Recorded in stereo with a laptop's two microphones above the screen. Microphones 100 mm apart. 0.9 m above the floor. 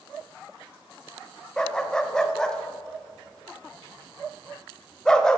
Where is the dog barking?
5° left (ahead or behind), 0.7 m.